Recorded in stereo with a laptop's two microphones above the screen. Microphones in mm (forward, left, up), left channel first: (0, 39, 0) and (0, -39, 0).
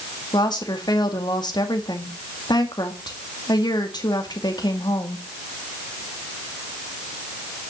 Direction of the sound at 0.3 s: 75° left (ahead or behind).